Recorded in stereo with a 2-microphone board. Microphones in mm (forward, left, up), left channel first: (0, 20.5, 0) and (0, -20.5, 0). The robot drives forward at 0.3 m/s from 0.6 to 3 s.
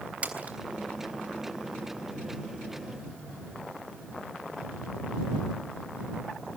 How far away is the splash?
About 3.5 m.